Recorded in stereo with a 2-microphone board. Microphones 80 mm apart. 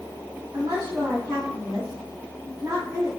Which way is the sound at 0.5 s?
30° right (ahead or behind).